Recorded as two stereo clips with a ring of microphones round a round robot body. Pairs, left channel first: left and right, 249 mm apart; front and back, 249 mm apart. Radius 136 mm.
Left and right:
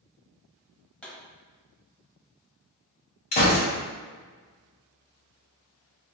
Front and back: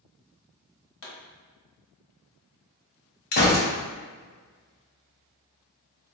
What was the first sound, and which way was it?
A pop, 5° left.